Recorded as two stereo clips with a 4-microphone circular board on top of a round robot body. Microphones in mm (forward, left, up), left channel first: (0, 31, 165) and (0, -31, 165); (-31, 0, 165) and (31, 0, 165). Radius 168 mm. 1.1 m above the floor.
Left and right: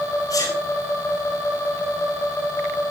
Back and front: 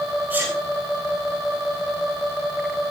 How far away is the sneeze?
About 9.5 m.